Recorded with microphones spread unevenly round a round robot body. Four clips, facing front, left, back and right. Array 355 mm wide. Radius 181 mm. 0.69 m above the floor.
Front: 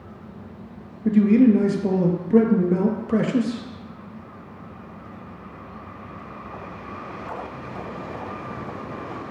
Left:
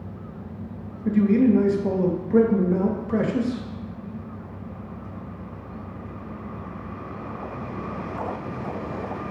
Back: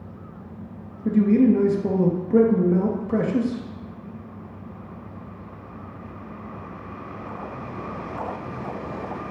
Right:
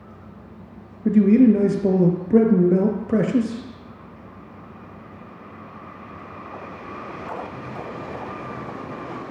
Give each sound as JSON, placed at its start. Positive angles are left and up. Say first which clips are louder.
{"t": 1.1, "sound": "a man speaking", "louder": "right 4 dB, front 2 dB", "azimuth_deg": -70, "distance_m": 0.5}